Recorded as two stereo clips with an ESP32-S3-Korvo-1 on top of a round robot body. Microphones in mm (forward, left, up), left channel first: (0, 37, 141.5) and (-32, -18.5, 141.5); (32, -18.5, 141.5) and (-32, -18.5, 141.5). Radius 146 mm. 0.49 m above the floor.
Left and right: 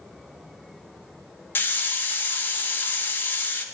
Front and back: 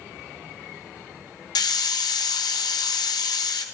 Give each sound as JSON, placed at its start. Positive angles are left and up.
{"t": 1.6, "sound": "a hiss", "azimuth_deg": 0, "distance_m": 0.9}